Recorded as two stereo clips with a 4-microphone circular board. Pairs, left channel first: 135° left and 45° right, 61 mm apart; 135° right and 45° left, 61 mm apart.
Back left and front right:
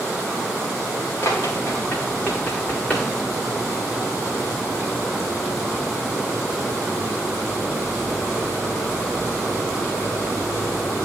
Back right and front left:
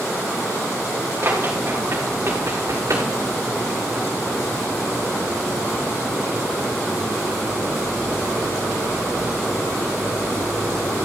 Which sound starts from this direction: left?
Running footsteps, at 1.2 s.